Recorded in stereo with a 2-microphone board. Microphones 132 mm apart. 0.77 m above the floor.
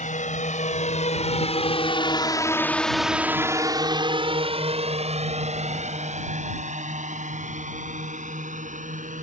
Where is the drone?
70° left (ahead or behind); by 9.2 s 70° right (ahead or behind).